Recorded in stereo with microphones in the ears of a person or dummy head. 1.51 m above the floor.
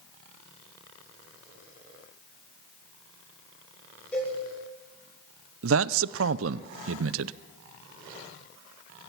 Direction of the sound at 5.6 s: 85° right.